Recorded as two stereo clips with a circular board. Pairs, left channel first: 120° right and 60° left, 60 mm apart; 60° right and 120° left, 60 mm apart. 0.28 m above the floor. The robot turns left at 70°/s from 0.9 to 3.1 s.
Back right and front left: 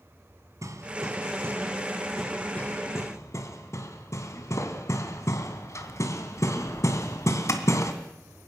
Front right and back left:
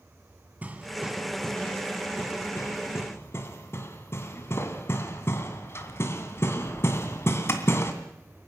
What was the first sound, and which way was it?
Hammering, 60° left.